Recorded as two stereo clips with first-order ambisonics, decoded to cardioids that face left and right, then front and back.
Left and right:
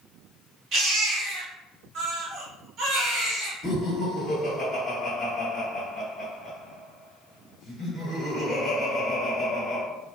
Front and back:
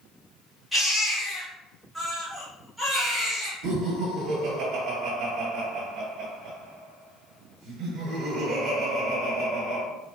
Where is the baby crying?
100° right, 1.3 m.